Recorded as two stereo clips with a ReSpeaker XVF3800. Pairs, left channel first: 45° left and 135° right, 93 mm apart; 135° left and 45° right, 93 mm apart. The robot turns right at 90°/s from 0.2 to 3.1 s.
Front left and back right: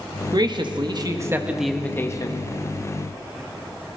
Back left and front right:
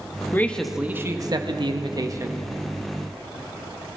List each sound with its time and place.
0.3 s a man speaking: 165° right, 1.3 m; by 2.5 s 30° left, 1.3 m